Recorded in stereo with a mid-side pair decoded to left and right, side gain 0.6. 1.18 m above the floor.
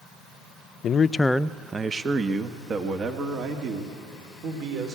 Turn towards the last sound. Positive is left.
turn(degrees=-55)